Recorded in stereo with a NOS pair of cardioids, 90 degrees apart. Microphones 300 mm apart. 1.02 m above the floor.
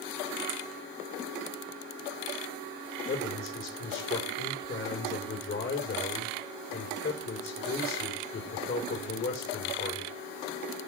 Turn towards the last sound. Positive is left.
turn(degrees=40)